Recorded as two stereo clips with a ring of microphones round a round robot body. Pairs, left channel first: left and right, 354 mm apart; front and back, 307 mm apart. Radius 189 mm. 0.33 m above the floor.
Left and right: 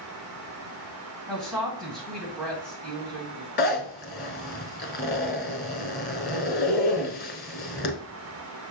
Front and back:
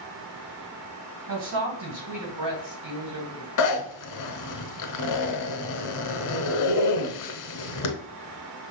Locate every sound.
1.3 s a woman speaking: straight behind, 2 m
3.6 s a zipper: 25° left, 0.9 m